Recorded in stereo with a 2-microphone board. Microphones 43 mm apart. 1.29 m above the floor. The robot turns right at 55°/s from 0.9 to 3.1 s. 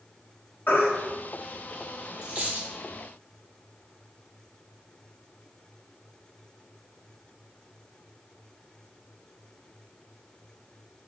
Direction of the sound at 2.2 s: 25° right (ahead or behind).